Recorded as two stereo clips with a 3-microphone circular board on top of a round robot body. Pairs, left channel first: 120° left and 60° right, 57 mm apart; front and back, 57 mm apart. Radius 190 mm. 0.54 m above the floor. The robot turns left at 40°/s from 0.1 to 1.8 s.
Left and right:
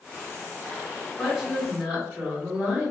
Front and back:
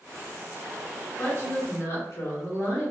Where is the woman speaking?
25° left, 1.8 m; by 2.9 s straight ahead, 1.8 m.